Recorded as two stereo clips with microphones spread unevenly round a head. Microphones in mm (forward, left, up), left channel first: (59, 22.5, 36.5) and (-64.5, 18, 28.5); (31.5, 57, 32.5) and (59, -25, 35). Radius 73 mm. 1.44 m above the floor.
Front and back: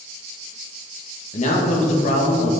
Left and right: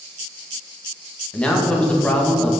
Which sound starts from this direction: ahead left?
A man speaking, at 1.3 s.